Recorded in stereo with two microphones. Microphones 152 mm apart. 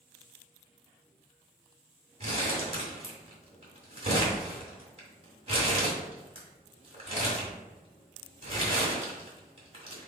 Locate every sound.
2.2 s crumpling: 40° right (ahead or behind), 3 m